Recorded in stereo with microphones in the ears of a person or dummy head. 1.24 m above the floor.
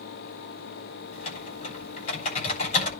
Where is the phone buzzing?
I don't hear a phone buzzing.